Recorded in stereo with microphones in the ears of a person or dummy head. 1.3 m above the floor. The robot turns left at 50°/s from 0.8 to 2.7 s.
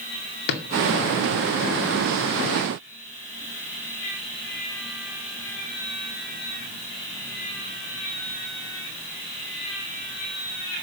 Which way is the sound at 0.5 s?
60° left (ahead or behind).